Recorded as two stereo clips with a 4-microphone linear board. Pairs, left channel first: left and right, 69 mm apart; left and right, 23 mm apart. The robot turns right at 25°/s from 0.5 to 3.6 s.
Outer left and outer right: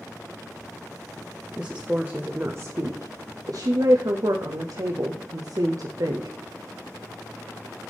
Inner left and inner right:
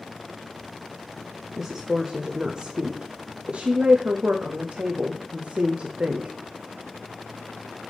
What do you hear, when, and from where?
1.6 s a woman speaking: 10° right (ahead or behind), 0.5 m; by 6.3 s 60° right (ahead or behind), 0.5 m